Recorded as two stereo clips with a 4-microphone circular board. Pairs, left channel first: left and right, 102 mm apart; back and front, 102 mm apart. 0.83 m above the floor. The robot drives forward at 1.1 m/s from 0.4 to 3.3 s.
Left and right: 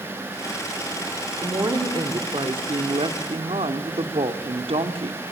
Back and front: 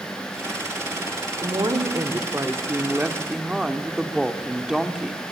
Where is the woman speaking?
45° right, 3.5 m; by 5.2 s 85° right, 2.5 m.